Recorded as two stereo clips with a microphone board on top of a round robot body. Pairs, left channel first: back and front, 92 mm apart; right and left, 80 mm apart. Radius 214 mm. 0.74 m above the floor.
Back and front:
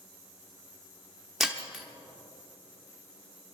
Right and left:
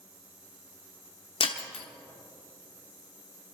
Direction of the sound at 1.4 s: 90° right.